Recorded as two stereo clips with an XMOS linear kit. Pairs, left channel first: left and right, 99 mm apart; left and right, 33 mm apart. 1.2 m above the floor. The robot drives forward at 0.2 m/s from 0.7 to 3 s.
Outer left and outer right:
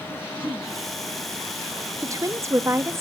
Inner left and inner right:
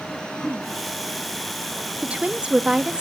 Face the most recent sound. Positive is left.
turn(degrees=-25)  # may be behind; listen again after turning